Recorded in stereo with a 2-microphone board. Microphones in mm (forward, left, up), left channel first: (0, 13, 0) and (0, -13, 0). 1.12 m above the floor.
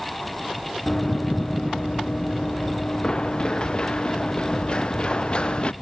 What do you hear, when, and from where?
0.9 s running footsteps: 20° left (ahead or behind); by 5.7 s 40° left (ahead or behind)